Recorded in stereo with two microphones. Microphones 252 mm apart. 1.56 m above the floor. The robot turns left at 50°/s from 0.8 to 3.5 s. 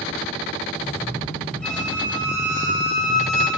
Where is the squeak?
5° left, 1.3 m; by 3.5 s 90° right, 1.3 m.